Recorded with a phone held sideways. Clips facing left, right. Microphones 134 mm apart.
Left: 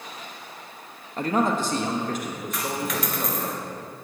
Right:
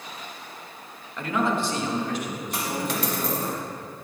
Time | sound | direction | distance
1.2 | a man speaking | 35° left (ahead or behind) | 0.9 m
2.5 | a dropped coin | 30° right (ahead or behind) | 1.9 m